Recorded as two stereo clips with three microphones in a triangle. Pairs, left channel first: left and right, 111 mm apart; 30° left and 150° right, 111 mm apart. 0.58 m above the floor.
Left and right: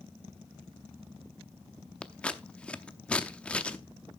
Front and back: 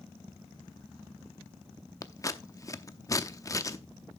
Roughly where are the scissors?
Ahead left.